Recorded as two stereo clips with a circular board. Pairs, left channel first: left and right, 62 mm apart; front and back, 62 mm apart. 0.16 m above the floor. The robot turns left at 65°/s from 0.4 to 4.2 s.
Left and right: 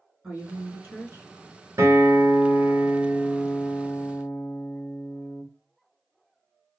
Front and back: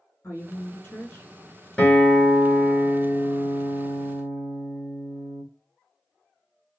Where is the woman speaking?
15° right, 2.0 m; by 1.3 s 75° right, 2.0 m.